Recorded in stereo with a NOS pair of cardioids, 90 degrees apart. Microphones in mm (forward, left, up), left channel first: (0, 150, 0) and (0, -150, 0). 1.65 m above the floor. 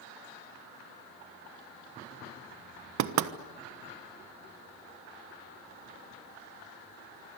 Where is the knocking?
70° right, 1.3 m.